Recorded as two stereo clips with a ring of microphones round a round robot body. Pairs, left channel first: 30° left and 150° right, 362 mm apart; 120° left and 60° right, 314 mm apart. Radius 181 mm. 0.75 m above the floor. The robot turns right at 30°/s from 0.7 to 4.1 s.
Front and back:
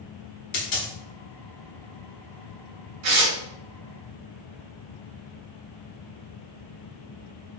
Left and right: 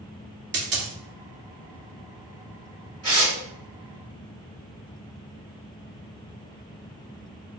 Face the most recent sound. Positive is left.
turn(degrees=-95)